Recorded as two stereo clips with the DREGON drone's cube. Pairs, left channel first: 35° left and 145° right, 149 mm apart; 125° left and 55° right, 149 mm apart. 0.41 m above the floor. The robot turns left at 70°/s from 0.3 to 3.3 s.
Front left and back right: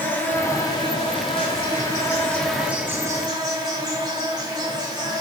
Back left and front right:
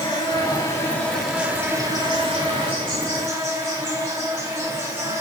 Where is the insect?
95° left, 2.5 m; by 5.2 s 115° right, 2.5 m.